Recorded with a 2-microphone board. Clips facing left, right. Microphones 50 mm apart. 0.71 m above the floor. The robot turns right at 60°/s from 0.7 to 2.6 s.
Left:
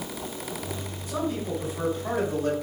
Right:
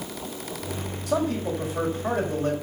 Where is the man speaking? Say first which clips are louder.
Right 4 dB; 110° right, 4 m; by 2.5 s 25° right, 4 m.